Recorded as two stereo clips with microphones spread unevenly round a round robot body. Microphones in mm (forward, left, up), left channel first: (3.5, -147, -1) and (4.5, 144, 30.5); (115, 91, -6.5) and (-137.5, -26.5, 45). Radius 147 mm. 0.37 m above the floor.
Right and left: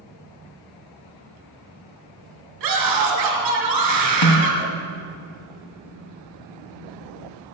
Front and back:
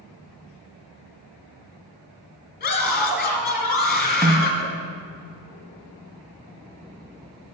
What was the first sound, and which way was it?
A scream, 75° left.